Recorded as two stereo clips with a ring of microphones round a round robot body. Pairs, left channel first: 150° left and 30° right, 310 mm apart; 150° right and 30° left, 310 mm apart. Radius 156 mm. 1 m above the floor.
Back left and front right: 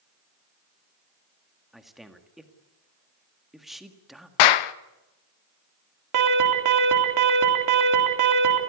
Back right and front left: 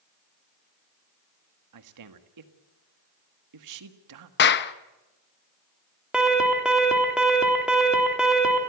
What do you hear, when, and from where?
1.7 s a man speaking: 60° left, 1.8 m
4.4 s a clap: 150° left, 0.8 m
6.1 s an alarm: 55° right, 3.5 m